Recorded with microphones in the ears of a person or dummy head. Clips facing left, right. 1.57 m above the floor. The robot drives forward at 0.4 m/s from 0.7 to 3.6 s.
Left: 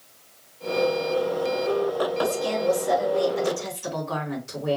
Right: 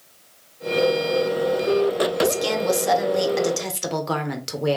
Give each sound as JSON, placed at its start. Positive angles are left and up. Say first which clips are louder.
{"t": 2.2, "sound": "a woman speaking", "louder": "right 2 dB", "side_deg": -75, "distance_m": 1.4}